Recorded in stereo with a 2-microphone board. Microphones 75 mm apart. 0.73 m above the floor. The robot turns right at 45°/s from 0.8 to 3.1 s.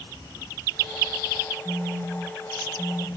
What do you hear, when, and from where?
1.6 s a phone buzzing: 60° right, 1.7 m; by 3.1 s straight ahead, 1.7 m